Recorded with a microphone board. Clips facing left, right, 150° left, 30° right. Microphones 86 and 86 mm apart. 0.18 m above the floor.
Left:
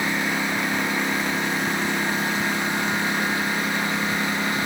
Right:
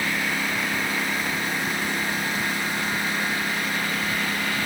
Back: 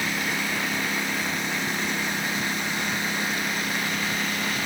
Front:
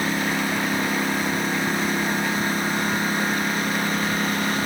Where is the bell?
I don't hear a bell.